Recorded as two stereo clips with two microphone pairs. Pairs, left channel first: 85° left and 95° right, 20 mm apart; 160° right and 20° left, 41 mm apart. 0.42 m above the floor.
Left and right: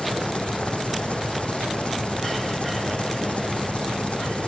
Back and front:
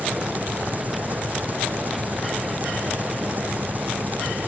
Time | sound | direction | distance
0.0 | an engine running | 70° left | ?